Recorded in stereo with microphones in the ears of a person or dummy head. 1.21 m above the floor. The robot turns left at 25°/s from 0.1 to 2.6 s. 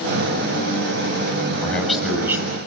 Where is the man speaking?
10° left (ahead or behind), 8 m; by 2.5 s 10° right (ahead or behind), 8 m.